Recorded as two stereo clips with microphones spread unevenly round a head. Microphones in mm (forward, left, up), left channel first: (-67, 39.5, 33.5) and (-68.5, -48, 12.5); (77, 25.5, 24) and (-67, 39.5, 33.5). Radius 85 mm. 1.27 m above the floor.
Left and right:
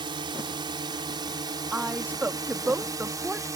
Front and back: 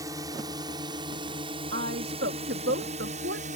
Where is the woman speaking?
165° right.